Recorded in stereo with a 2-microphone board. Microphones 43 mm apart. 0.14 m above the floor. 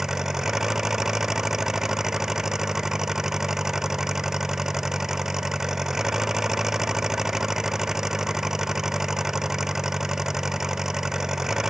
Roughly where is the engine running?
Centre.